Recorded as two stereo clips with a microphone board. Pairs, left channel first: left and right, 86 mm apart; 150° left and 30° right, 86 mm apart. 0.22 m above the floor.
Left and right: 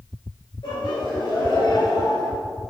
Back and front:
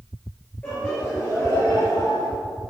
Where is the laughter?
80° left, 2.5 m; by 2.3 s 120° left, 1.4 m.